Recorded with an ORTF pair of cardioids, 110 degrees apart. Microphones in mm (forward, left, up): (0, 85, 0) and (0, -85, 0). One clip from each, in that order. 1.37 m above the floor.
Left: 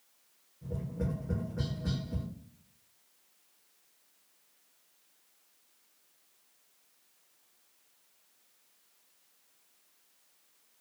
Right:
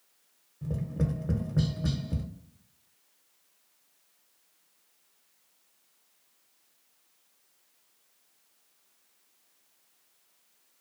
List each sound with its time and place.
0.6 s tapping: 50° right, 0.7 m